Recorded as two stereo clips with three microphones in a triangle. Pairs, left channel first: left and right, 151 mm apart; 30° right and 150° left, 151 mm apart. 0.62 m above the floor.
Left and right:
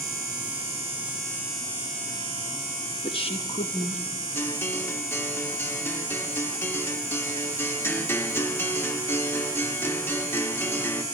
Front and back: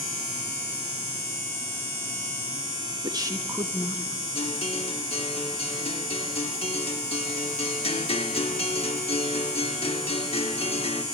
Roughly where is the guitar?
Ahead.